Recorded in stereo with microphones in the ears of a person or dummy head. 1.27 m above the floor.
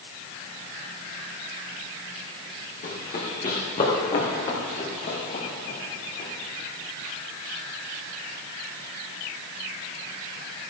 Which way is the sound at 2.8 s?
30° left (ahead or behind).